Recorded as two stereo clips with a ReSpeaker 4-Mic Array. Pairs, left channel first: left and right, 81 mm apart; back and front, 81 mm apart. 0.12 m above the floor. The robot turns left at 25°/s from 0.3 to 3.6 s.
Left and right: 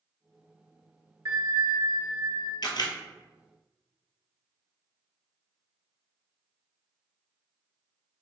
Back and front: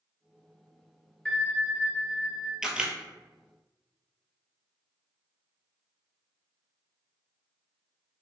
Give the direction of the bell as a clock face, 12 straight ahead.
3 o'clock.